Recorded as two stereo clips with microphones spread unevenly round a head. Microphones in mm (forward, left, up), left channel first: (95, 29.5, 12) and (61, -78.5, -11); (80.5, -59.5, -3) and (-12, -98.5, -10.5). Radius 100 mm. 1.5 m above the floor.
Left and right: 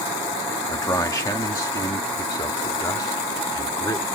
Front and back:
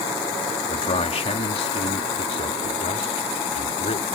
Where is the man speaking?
10° left; by 4.1 s 15° left.